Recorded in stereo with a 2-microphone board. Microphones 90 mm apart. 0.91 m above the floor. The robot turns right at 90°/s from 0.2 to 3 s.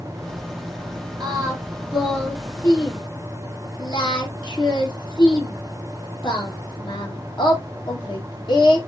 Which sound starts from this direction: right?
Singing, at 1.2 s.